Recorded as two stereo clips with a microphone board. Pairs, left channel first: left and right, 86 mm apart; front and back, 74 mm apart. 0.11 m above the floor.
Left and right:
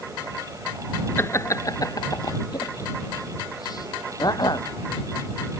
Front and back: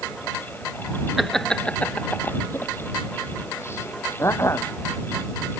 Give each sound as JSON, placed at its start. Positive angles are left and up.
{"t": 1.2, "sound": "laughter", "azimuth_deg": 95}